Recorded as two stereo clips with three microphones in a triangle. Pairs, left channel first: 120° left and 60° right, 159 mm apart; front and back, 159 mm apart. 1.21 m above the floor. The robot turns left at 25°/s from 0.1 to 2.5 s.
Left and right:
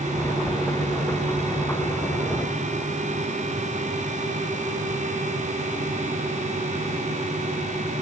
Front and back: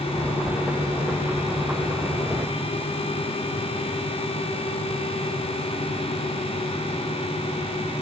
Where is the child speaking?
No child speaking in this recording.